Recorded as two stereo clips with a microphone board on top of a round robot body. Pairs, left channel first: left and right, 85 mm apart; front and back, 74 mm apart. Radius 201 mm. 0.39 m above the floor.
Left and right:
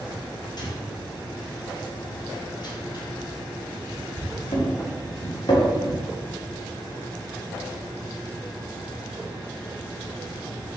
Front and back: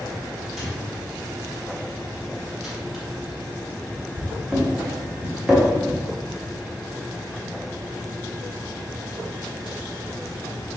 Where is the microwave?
95° left, 1.5 m.